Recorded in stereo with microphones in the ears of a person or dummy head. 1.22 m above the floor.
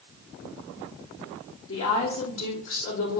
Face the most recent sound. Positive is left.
turn(degrees=85)